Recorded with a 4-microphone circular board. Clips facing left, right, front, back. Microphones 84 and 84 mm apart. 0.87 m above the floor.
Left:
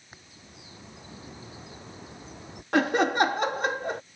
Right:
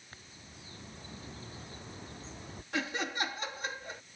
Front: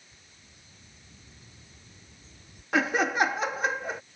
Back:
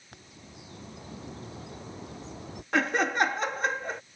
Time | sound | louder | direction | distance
0.1 | a bird | left 3 dB, back 9 dB | 165° left | ?
2.7 | laughter | left 13 dB, front 1 dB | 85° left | ?